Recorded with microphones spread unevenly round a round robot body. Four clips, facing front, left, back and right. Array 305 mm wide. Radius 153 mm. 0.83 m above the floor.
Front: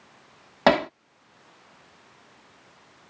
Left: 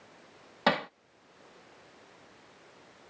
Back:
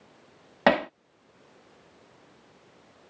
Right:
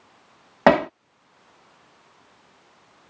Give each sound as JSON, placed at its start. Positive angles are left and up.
{"t": 0.7, "sound": "hammering", "azimuth_deg": -80}